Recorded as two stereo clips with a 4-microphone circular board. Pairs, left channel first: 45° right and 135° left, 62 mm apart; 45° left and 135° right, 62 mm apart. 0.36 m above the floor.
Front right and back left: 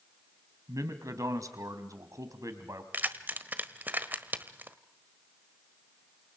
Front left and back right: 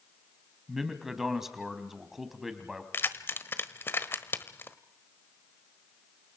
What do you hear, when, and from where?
0.7 s a man speaking: 140° left, 3 m
2.9 s keys jangling: 85° left, 1.3 m